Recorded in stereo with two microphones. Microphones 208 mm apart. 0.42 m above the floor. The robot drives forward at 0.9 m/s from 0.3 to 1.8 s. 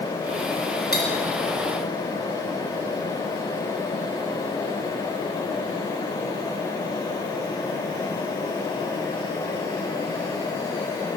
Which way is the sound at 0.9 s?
50° left (ahead or behind).